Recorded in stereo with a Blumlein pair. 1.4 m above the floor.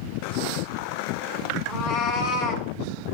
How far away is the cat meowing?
About 3.5 m.